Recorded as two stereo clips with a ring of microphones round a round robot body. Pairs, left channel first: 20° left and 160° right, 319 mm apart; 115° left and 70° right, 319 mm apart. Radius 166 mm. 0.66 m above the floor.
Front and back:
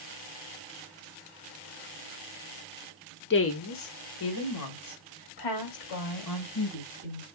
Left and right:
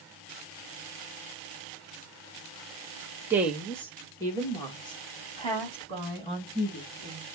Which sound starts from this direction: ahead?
A woman speaking, at 3.3 s.